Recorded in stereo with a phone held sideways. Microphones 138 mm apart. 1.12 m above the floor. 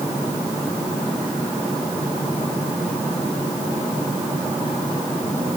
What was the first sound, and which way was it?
Only background noise.